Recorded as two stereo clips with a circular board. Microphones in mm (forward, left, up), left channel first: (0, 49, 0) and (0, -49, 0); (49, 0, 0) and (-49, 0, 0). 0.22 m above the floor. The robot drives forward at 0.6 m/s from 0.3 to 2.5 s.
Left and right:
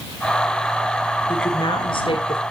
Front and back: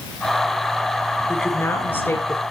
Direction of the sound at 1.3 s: 65° left.